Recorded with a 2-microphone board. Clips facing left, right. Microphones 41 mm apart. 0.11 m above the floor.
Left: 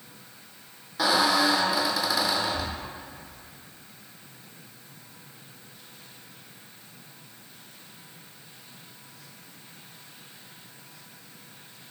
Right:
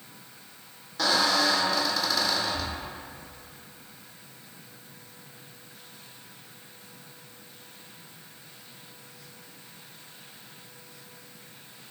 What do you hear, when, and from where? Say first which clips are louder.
1.0 s a squeak: left 2 dB; 10° left (ahead or behind), 0.6 m